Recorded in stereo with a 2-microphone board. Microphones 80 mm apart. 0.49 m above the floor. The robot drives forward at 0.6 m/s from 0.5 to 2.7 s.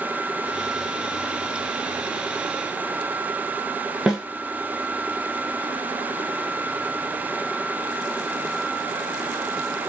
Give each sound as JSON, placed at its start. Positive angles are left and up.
{"t": 4.1, "sound": "a snare drum", "side_deg": -10, "distance_m": 1.1}